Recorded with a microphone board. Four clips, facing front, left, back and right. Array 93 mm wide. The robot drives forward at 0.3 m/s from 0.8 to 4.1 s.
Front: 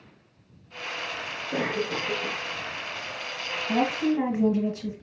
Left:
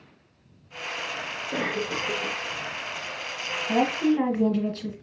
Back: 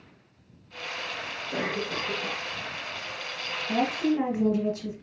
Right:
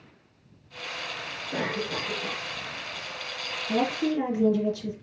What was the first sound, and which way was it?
A cough, 75° left.